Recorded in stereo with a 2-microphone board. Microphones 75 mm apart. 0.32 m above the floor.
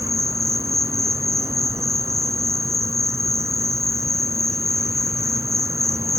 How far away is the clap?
No clap in this recording.